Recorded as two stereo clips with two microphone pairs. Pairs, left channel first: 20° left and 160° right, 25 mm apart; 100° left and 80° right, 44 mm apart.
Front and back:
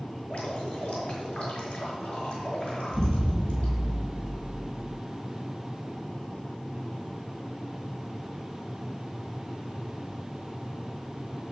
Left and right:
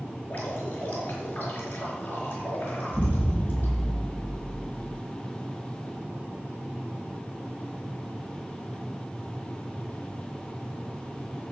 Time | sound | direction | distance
0.2 | dripping | 45° left | 4.5 m
2.9 | an explosion | 25° left | 4.5 m